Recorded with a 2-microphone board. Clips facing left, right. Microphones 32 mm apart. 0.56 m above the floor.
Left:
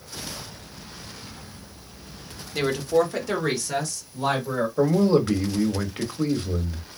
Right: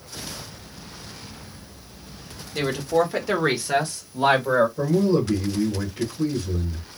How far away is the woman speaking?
About 1.4 m.